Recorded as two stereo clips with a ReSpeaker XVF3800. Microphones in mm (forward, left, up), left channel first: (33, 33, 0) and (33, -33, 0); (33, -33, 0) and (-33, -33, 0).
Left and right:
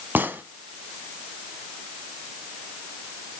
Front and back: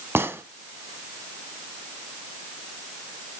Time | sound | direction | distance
0.1 | a gunshot | 140° right | 1.0 m